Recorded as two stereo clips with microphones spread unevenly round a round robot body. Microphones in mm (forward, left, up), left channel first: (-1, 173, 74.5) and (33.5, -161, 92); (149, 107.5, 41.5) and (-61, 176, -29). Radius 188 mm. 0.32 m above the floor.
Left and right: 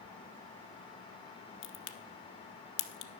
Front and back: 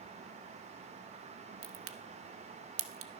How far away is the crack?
About 1.1 m.